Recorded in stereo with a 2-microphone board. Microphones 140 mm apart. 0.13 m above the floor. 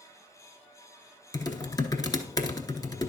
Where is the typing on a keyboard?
30° left (ahead or behind), 0.8 m.